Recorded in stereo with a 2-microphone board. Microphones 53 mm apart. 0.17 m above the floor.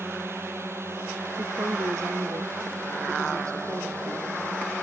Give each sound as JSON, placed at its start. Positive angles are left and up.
{"t": 0.0, "sound": "a drone", "side_deg": -50}
{"t": 1.4, "sound": "a woman speaking", "side_deg": -80}